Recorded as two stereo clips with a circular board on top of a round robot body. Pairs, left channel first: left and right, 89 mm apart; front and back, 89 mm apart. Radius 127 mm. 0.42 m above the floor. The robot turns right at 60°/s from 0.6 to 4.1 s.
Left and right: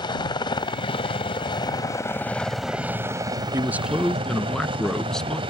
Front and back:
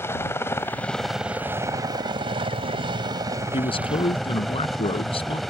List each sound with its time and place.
0.0 s a helicopter: 60° left; by 5.5 s 90° right
3.5 s a man speaking: 30° right; by 5.4 s 5° left